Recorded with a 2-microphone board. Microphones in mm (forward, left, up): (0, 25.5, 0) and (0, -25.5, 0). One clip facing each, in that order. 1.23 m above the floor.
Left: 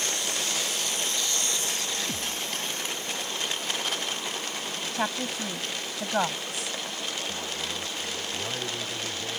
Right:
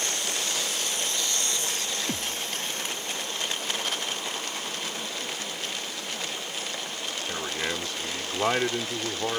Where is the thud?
40° right (ahead or behind).